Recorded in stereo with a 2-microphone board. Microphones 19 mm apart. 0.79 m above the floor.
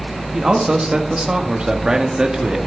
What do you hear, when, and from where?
0.3 s a man speaking: 50° right (ahead or behind), 1.3 m; by 2.6 s 45° right (ahead or behind), 1.7 m